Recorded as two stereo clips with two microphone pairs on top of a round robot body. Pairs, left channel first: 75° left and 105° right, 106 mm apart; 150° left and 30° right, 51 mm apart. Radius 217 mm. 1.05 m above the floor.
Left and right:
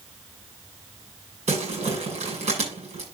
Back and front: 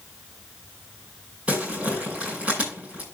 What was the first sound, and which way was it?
Crumpling, 100° right.